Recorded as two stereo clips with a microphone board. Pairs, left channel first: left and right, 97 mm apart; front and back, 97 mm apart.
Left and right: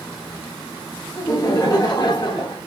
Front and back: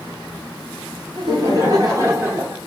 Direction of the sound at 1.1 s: 140° left.